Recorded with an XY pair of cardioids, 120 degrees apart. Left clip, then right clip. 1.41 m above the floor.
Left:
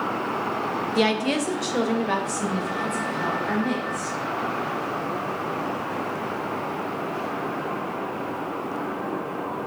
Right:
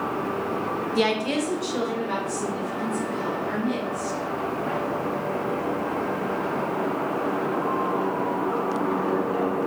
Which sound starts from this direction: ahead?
A woman speaking, at 0.9 s.